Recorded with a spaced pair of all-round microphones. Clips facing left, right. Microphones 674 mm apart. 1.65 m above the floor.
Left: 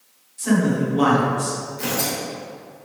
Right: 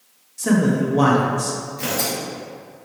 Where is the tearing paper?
15° right (ahead or behind), 1.8 m.